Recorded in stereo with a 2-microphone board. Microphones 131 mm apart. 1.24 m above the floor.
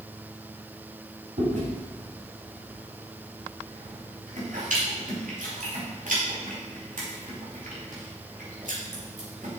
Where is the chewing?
70° right (ahead or behind), 4.5 m.